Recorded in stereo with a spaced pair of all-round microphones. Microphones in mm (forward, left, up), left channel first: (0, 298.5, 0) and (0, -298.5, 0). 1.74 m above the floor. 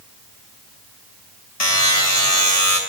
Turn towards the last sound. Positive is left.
turn(degrees=80)